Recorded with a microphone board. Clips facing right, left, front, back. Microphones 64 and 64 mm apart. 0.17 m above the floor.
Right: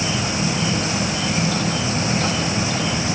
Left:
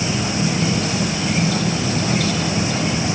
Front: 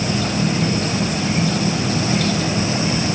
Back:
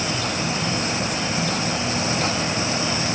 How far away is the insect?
About 3 m.